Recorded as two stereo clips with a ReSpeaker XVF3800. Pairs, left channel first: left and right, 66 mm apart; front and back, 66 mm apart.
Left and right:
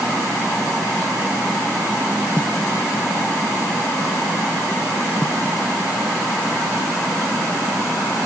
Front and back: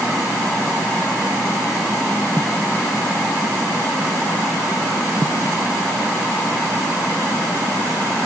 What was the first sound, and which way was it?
Only background noise.